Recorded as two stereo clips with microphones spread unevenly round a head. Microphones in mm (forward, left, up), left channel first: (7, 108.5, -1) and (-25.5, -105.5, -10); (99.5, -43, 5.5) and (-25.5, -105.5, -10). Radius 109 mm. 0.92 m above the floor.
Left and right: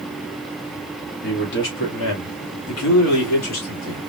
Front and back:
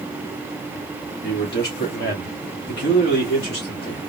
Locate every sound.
1.2 s a man speaking: 35° left, 1.7 m; by 4.0 s 65° left, 2.5 m